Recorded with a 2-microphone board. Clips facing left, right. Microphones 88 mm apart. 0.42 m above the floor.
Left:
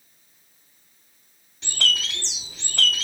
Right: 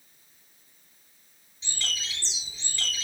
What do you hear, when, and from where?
1.6 s a bird: 75° left (ahead or behind), 3 m